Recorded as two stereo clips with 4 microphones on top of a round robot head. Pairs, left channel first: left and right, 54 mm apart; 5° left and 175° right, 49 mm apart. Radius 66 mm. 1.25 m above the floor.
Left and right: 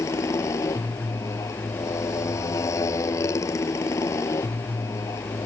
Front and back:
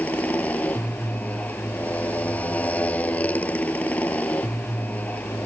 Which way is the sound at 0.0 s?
65° left.